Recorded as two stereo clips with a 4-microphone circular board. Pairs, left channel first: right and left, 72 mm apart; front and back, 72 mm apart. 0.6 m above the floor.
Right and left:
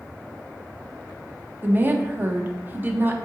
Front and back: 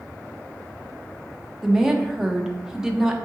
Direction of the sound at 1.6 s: 105° left.